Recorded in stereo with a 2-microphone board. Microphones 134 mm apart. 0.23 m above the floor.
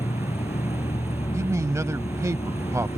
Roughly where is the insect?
Left.